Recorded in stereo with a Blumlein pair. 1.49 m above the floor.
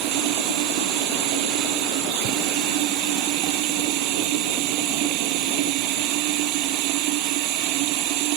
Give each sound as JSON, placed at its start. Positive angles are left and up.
{"t": 0.0, "sound": "running water", "azimuth_deg": -40}